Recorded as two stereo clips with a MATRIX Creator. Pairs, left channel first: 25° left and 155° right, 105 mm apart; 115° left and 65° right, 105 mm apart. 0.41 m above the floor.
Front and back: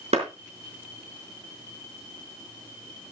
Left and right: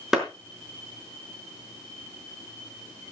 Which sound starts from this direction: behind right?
A clap, at 0.1 s.